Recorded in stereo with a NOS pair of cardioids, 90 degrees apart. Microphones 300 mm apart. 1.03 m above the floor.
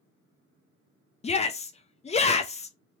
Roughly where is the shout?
Ahead left.